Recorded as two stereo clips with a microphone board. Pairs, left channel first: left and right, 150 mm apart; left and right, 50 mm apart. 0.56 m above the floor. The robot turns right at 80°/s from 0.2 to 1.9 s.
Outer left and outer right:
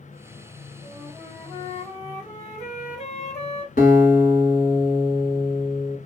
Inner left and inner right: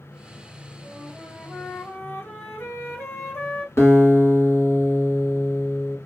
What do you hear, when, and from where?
0.8 s a flute: 20° right, 1.2 m; by 3.7 s 70° left, 1.2 m
3.8 s a guitar: 70° left (ahead or behind), 1.1 m